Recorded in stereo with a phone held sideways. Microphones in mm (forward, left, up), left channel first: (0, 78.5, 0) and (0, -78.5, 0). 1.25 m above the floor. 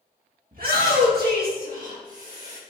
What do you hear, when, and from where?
0.5 s a shout: 65° right (ahead or behind), 2 m; by 2.6 s 35° right (ahead or behind), 2 m